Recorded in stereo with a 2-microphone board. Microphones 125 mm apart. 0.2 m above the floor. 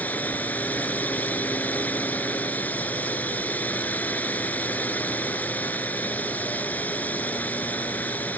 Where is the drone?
15° left (ahead or behind).